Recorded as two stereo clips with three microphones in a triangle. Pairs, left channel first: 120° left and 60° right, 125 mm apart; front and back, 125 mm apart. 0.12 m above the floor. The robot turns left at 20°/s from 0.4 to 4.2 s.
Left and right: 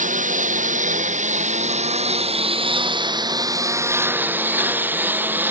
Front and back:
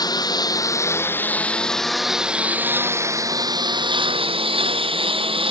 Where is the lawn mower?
60° right; by 5.5 s 135° right.